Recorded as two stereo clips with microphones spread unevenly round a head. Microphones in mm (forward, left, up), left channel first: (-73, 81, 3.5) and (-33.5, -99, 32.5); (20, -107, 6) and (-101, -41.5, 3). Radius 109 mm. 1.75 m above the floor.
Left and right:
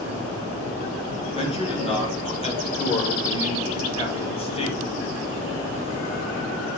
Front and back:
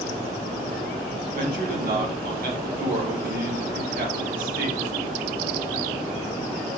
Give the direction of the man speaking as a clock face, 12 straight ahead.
7 o'clock.